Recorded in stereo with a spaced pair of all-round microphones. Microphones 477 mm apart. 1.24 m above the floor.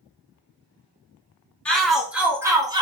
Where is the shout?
Centre (ahead or behind), 0.6 m; by 2.8 s 10° right (ahead or behind), 0.6 m.